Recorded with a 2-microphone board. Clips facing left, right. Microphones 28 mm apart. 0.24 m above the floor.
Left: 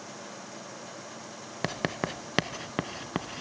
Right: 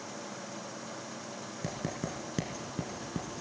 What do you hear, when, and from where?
1.6 s writing: 55° left (ahead or behind), 0.6 m